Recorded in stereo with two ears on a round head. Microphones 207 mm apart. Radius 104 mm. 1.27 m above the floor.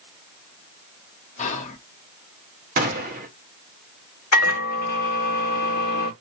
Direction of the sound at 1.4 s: 30° left (ahead or behind).